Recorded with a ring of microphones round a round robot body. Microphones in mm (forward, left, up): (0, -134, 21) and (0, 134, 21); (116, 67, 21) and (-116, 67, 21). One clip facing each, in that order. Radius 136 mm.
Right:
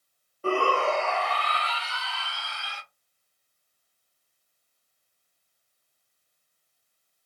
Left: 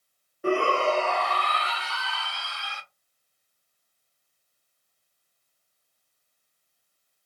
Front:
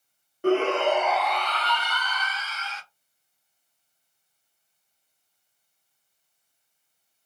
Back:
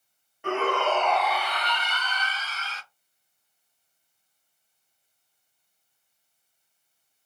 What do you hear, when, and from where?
0.4 s a shout: 25° left, 0.8 m; by 2.8 s 130° left, 1.5 m